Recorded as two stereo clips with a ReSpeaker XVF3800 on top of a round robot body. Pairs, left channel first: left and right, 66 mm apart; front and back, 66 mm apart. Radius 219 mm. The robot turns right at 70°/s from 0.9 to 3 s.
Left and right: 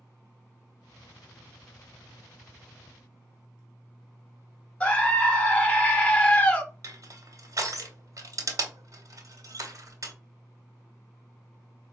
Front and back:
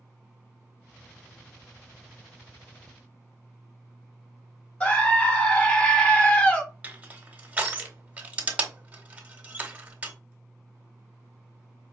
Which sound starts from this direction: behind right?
Crushing, at 6.8 s.